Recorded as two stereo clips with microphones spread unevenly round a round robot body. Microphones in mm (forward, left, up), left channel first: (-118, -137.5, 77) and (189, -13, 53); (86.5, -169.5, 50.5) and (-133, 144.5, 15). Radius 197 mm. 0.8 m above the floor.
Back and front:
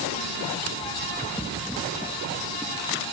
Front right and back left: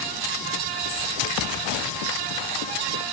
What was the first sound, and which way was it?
Only background noise.